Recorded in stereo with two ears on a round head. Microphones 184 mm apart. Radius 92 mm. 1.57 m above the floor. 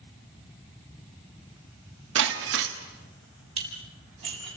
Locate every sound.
2.1 s breaking glass: 60° right (ahead or behind), 2.5 m
3.6 s dishes clattering: 30° right (ahead or behind), 7.5 m